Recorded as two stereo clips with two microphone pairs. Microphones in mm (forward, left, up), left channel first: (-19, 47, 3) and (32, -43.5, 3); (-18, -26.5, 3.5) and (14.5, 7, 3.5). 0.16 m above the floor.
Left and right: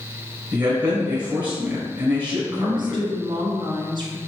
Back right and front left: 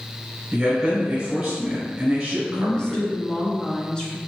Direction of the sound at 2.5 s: 70° right.